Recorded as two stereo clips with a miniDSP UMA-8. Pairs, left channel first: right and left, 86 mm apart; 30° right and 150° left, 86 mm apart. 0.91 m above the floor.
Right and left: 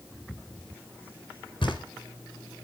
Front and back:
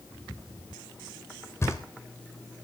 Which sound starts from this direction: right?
Knocking, at 1.6 s.